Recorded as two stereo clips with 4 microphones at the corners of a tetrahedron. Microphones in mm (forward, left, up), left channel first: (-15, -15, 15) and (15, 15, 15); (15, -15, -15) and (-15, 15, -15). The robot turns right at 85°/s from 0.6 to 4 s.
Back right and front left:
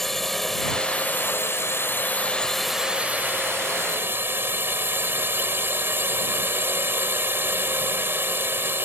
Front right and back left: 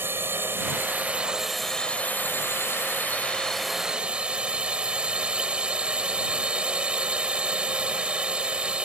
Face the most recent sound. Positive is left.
turn(degrees=70)